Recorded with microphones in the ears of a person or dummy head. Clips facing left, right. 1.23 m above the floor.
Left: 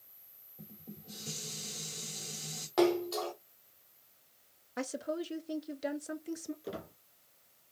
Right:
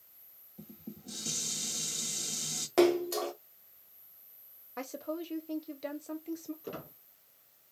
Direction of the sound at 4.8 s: 5° left (ahead or behind).